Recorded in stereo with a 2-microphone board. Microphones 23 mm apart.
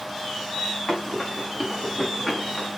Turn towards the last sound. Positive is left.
turn(degrees=10)  # may be behind; listen again after turning